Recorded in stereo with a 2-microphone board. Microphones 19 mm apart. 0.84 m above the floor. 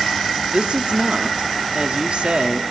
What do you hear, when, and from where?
0.5 s a woman speaking: 60° right (ahead or behind), 1.5 m